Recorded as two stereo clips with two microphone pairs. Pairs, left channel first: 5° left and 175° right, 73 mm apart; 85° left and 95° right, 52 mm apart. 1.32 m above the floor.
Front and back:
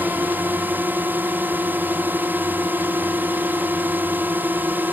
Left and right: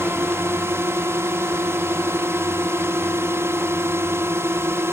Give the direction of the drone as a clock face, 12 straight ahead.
4 o'clock.